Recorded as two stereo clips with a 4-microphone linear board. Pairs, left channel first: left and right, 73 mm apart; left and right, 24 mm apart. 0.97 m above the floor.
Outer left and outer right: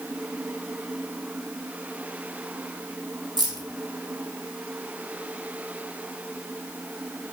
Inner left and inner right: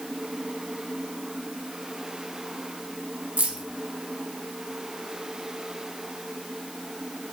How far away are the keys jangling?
About 0.7 m.